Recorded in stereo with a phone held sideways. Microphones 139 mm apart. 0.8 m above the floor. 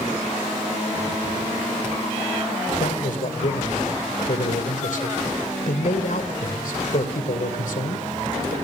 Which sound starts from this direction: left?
A man speaking, at 2.8 s.